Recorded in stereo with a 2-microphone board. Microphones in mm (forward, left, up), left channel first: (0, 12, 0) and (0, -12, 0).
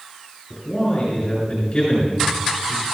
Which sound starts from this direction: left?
A man speaking, at 0.5 s.